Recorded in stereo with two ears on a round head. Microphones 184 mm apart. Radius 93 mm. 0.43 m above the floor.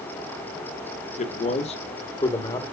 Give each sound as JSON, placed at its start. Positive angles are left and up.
{"t": 1.2, "sound": "a man speaking", "side_deg": 35, "distance_m": 1.0}